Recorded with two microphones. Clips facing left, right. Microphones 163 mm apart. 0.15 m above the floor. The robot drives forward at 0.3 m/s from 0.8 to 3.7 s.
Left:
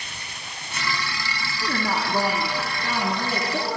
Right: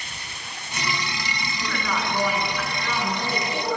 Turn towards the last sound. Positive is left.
turn(degrees=25)  # may be behind; listen again after turning